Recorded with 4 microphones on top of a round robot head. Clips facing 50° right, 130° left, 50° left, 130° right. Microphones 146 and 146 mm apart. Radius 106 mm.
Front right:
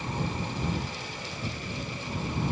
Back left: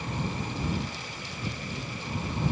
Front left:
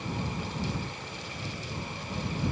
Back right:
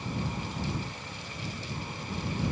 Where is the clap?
I don't hear a clap.